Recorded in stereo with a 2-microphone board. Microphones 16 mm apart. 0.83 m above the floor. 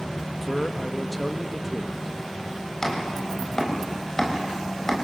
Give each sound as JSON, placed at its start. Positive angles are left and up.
{"t": 0.4, "sound": "a man speaking", "side_deg": 5, "distance_m": 1.2}
{"t": 2.8, "sound": "chopping", "side_deg": 30, "distance_m": 4.0}